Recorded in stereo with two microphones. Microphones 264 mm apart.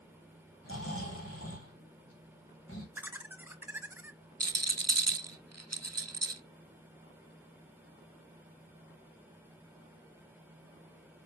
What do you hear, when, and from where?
0.6 s snoring: 55° left (ahead or behind), 3 m
3.0 s laughter: 10° right (ahead or behind), 1.0 m
4.4 s a rattle: 80° right, 0.7 m